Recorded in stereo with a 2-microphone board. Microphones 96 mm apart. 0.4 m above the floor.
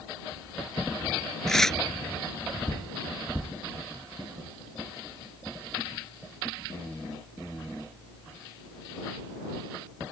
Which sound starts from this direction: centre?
Tearing paper, at 1.5 s.